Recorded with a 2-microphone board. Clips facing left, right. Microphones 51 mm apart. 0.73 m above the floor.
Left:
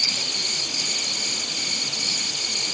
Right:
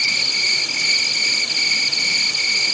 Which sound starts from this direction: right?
An insect, at 0.0 s.